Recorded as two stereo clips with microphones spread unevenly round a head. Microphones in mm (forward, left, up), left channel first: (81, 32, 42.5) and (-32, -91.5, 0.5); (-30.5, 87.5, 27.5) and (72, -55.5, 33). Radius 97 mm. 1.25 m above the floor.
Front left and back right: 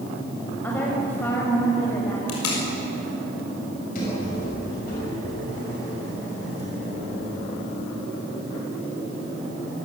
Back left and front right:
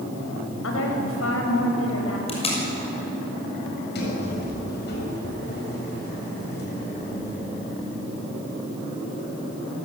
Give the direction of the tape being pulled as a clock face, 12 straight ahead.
10 o'clock.